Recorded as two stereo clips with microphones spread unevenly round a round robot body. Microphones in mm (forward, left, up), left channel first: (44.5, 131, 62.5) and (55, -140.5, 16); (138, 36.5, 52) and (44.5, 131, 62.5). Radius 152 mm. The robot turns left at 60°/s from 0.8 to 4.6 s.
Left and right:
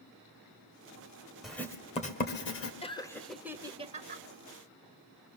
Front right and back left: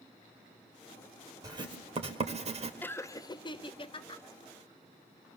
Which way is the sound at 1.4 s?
165° right.